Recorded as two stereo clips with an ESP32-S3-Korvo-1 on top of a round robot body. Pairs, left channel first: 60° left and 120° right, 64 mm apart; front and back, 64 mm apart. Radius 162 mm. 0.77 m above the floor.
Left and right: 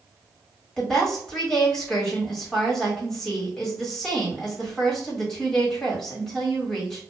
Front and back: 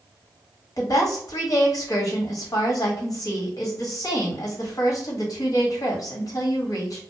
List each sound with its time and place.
0.8 s a woman speaking: 25° right, 1.4 m